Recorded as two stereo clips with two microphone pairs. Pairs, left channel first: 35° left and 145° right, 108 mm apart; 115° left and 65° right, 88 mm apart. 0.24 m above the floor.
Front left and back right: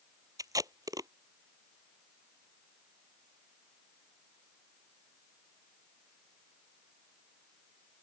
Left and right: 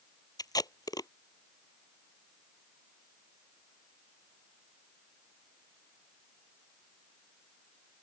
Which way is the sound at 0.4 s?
155° left.